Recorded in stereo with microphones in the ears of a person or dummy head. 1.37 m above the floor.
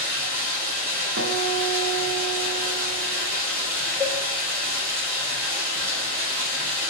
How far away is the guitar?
About 0.5 m.